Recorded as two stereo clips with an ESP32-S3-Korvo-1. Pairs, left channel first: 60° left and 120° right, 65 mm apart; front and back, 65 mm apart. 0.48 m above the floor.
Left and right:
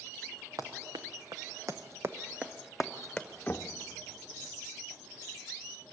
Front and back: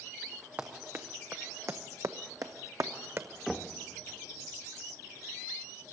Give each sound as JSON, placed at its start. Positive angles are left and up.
{"t": 0.6, "sound": "running footsteps", "azimuth_deg": -120, "distance_m": 1.7}
{"t": 3.5, "sound": "knocking", "azimuth_deg": 95, "distance_m": 0.7}